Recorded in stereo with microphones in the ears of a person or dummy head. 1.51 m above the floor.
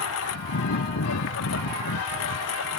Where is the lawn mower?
70° left (ahead or behind).